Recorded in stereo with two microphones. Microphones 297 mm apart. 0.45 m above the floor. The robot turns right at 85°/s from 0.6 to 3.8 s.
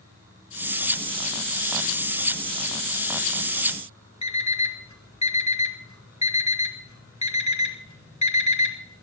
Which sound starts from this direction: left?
An alarm clock, at 4.2 s.